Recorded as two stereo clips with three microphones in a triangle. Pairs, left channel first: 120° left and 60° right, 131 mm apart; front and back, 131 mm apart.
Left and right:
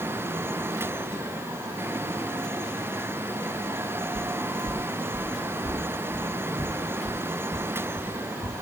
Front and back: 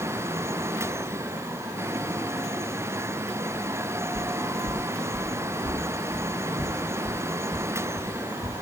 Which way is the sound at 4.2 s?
65° right.